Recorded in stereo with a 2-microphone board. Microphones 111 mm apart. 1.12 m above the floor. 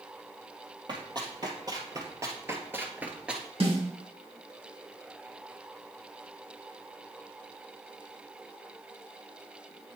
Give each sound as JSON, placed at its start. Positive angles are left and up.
{"t": 0.9, "sound": "running footsteps", "side_deg": -40, "distance_m": 1.8}
{"t": 3.6, "sound": "a snare drum", "side_deg": -60, "distance_m": 2.5}